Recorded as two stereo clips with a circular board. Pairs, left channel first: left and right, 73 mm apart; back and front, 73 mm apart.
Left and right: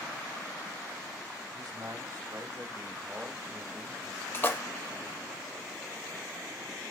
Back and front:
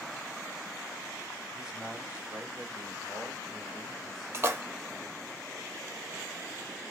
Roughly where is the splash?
Ahead left.